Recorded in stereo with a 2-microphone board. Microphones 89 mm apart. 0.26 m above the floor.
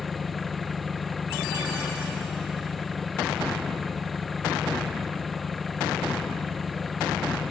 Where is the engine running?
Centre (ahead or behind).